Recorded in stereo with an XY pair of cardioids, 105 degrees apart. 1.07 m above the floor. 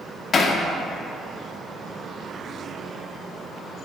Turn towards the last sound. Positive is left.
turn(degrees=45)